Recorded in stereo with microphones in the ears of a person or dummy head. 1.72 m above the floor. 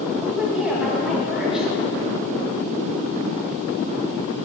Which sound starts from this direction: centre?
A woman speaking, at 0.2 s.